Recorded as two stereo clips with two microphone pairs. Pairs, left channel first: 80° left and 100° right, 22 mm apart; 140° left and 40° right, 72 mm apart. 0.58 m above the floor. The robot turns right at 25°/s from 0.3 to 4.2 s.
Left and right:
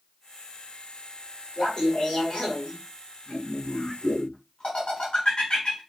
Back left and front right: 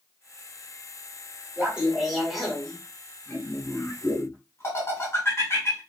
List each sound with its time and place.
1.6 s laughter: 30° left, 2 m; by 5.8 s 95° left, 2 m